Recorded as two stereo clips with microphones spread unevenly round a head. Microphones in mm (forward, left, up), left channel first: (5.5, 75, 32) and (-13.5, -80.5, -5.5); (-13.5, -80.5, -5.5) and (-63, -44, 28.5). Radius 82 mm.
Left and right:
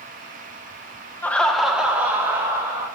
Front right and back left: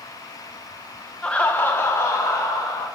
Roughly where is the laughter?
Ahead.